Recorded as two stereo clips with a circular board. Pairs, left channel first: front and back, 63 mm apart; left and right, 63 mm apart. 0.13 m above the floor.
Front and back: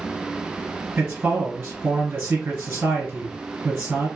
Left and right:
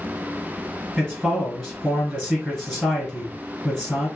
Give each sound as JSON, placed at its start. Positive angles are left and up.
{"t": 1.0, "sound": "a man speaking", "azimuth_deg": 175, "distance_m": 2.0}